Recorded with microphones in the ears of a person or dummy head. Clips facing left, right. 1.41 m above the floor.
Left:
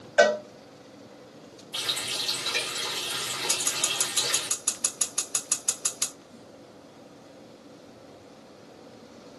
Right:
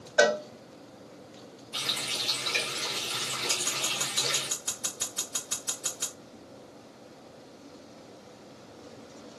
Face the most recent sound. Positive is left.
turn(degrees=55)  # may be behind; listen again after turning